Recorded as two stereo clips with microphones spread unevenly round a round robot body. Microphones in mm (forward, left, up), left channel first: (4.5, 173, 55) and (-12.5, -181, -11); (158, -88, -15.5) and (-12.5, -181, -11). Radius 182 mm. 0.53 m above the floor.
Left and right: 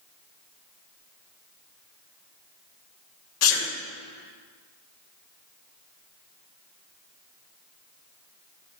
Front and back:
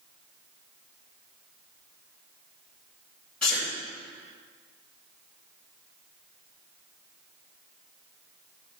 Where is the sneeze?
115° left, 2 m.